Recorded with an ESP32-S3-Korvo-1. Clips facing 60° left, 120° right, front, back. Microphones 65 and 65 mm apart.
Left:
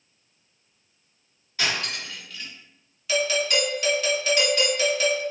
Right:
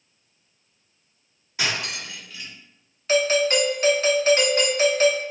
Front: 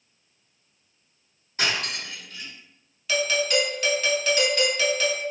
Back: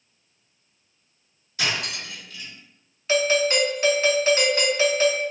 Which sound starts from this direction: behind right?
A doorbell, at 3.1 s.